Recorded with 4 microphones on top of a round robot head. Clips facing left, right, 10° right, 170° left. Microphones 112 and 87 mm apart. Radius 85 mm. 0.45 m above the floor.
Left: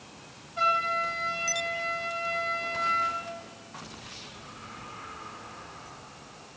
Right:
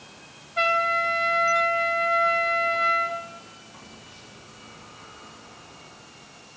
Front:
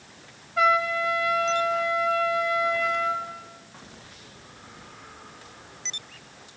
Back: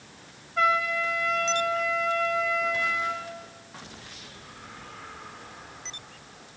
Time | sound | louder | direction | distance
0.6 | a trumpet | right 4 dB, front 3 dB | 95° right | 3 m